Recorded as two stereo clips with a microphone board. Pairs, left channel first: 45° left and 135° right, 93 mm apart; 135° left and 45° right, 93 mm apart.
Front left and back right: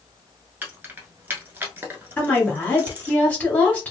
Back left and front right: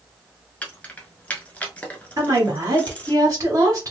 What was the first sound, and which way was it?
Keys jangling, 170° right.